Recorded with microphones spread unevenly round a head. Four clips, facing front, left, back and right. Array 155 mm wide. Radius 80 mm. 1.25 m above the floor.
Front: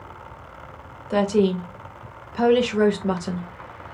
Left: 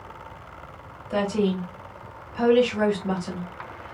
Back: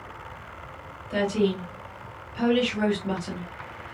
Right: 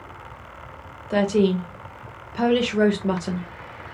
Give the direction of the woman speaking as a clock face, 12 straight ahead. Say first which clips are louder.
Right 4 dB, front 5 dB; 1 o'clock.